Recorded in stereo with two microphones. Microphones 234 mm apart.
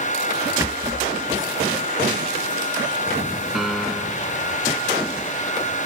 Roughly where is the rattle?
Centre.